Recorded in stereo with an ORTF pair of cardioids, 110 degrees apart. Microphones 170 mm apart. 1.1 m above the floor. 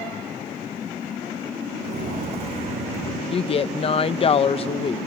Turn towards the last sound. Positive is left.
turn(degrees=35)